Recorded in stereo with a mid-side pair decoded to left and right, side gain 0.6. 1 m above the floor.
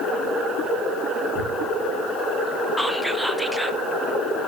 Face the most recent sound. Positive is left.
turn(degrees=-5)